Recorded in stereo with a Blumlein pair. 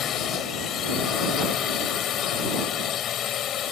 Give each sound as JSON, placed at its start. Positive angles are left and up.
{"t": 0.0, "sound": "a drone", "azimuth_deg": 30}